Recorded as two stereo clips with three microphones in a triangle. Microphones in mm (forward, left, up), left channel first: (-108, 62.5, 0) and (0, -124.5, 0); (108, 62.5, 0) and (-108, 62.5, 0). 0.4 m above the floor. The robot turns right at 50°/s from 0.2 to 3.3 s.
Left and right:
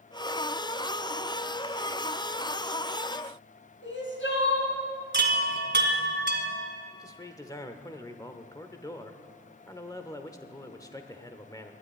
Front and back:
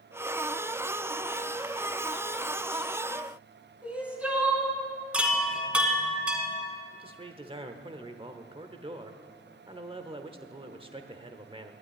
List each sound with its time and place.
3.8 s crying: 95° left, 3 m
5.1 s a chime: 95° right, 1.8 m
6.9 s a man speaking: 170° left, 1.0 m